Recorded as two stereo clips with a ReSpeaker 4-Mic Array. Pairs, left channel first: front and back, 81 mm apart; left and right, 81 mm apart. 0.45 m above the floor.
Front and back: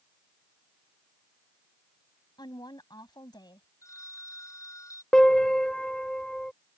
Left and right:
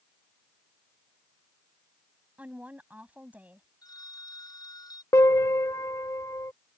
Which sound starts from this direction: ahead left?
A phone ringing, at 3.8 s.